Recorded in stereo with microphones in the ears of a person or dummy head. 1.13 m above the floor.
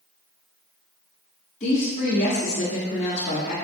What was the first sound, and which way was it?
A woman speaking, 35° left (ahead or behind).